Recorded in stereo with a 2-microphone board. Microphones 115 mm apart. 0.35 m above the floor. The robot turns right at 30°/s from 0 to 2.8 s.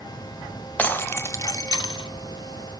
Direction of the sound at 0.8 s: 20° left.